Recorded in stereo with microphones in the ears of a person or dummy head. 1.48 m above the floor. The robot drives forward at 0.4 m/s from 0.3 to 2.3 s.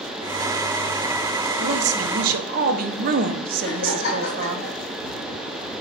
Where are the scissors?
No scissors in this recording.